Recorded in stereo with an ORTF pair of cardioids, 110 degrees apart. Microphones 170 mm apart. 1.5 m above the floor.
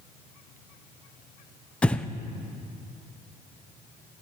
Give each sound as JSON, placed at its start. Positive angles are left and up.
{"t": 1.8, "sound": "breathing", "azimuth_deg": 5, "distance_m": 0.7}